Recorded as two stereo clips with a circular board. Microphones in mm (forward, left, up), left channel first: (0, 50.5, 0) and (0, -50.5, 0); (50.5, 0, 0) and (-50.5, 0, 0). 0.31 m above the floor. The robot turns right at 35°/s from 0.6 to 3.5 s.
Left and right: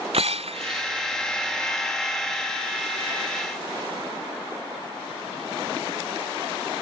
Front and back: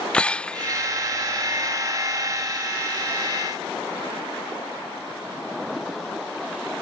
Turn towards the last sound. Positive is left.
turn(degrees=20)